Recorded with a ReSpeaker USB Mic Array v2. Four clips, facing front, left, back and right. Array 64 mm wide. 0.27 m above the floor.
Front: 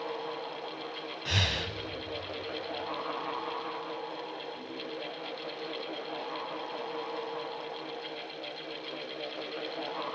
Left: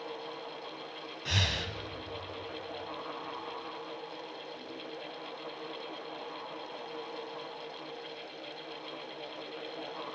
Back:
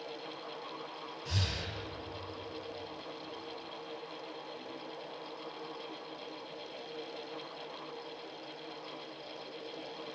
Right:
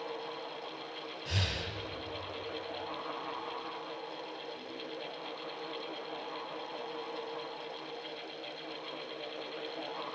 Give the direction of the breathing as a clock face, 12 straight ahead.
11 o'clock.